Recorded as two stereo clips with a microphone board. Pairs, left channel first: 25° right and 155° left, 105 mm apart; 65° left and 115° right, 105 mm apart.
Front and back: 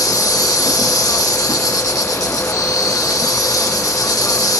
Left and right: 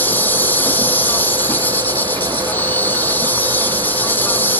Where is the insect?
5° left.